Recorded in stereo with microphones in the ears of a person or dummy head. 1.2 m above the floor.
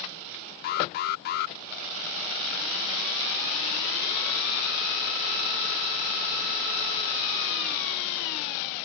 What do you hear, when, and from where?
0.6 s an alarm: 50° left (ahead or behind)